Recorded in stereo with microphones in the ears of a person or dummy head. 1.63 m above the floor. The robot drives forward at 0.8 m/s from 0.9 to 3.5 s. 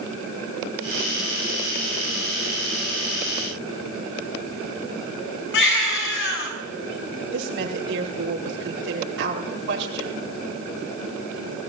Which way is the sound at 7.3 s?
65° right (ahead or behind).